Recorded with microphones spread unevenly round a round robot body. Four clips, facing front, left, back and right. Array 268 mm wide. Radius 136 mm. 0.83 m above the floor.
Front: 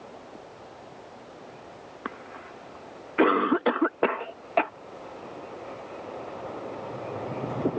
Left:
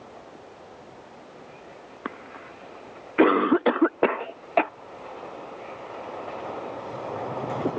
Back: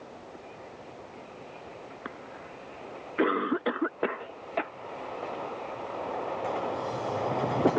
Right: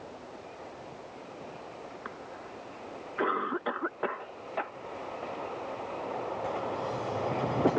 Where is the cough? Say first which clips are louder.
Left 4 dB, front 6 dB; 70° left.